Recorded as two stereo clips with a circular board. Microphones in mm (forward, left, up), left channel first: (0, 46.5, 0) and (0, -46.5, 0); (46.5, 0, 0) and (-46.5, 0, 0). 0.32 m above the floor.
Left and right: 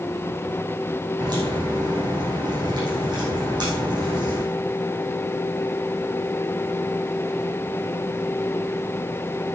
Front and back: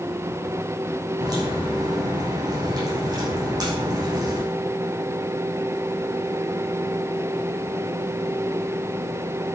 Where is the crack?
135° right, 6.5 m.